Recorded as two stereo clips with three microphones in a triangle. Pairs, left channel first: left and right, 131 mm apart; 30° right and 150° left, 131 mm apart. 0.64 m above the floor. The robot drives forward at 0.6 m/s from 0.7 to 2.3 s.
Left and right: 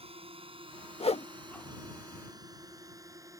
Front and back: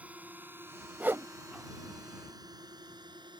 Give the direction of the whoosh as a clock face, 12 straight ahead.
9 o'clock.